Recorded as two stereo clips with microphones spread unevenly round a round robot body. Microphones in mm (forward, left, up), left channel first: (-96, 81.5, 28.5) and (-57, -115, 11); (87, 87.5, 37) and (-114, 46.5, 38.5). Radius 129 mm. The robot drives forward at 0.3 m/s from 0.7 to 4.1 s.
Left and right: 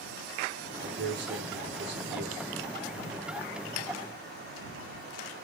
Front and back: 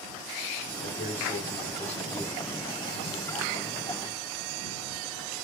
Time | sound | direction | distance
0.8 | a man speaking | 40° right | 1.9 m